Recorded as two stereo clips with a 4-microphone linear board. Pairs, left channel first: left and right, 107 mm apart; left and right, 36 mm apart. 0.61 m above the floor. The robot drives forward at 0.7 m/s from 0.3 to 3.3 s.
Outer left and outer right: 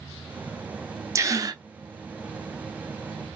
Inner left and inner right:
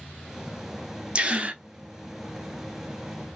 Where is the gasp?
30° right (ahead or behind), 0.9 m; by 1.6 s 40° right (ahead or behind), 0.7 m.